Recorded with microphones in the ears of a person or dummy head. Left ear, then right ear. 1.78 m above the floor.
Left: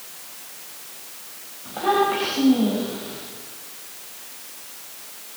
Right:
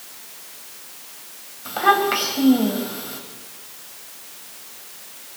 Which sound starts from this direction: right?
A child speaking, at 1.6 s.